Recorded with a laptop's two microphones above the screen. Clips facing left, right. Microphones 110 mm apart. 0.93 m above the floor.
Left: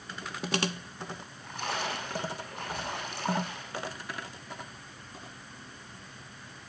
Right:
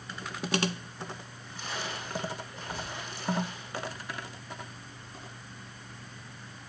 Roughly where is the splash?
Left.